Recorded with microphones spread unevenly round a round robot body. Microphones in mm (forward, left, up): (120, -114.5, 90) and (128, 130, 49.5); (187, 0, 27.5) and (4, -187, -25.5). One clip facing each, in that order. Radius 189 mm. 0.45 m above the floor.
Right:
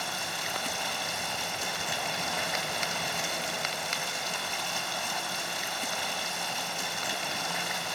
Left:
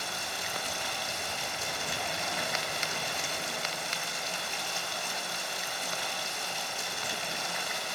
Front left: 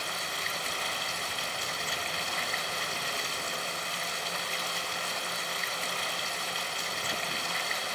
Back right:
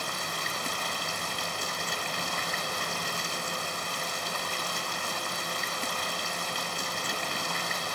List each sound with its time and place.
0.0 s running water: 100° right, 2.5 m